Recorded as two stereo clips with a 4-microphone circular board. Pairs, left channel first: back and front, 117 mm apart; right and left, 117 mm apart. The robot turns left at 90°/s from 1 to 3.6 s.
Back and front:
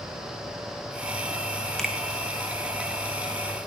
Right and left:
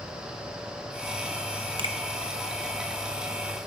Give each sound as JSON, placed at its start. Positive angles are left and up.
{"t": 1.8, "sound": "a finger snap", "azimuth_deg": 95, "distance_m": 1.4}